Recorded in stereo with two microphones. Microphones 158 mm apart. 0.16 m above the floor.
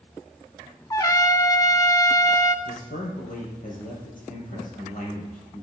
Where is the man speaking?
60° left (ahead or behind), 3.5 m.